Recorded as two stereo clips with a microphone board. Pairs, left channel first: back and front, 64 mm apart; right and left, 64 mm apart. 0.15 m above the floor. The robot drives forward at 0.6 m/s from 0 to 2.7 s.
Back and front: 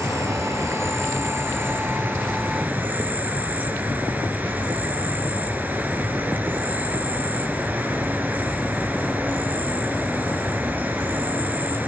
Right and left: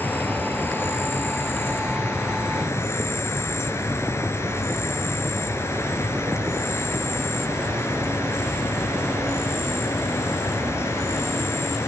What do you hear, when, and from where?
0.0 s an insect: 35° right, 4 m; by 11.9 s 55° right, 2.5 m